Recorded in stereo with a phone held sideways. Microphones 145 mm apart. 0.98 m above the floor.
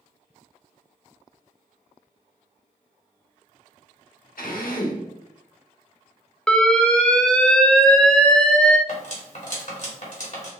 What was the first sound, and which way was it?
A drill, 75° left (ahead or behind).